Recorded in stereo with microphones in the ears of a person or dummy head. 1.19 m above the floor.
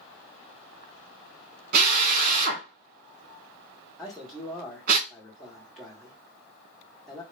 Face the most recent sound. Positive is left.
turn(degrees=-5)  # may be behind; listen again after turning